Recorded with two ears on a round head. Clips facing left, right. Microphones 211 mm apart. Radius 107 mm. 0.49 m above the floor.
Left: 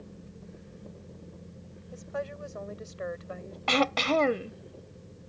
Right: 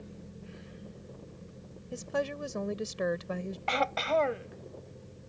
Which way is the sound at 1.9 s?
50° right (ahead or behind).